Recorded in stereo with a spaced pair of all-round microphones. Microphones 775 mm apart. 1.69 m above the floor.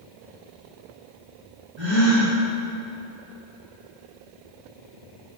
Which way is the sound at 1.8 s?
60° right (ahead or behind).